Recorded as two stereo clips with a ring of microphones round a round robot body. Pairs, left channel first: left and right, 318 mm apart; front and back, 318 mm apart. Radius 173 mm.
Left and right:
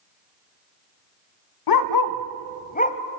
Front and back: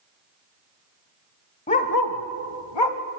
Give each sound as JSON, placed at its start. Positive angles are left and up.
{"t": 1.7, "sound": "a dog barking", "azimuth_deg": 75, "distance_m": 1.1}